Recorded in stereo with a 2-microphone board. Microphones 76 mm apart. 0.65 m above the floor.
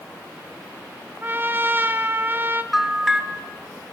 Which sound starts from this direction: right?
A trumpet, at 1.2 s.